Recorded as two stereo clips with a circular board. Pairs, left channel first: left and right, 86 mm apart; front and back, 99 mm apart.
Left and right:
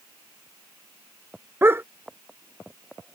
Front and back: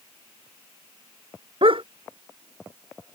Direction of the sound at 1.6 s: 150° right.